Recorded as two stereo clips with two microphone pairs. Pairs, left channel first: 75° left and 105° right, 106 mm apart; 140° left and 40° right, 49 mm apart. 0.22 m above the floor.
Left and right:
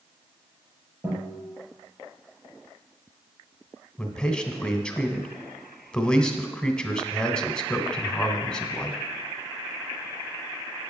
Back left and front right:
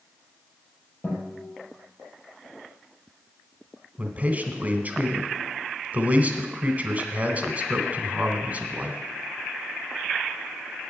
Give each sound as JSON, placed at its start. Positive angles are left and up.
{"t": 1.0, "sound": "a guitar", "azimuth_deg": -165, "distance_m": 5.0}
{"t": 4.0, "sound": "a man speaking", "azimuth_deg": 0, "distance_m": 1.3}